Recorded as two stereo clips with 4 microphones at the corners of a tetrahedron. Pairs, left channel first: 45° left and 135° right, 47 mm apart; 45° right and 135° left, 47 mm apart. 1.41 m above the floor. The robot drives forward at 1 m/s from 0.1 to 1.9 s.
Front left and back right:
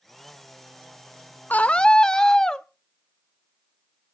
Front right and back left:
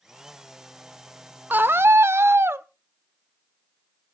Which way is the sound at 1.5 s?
90° left.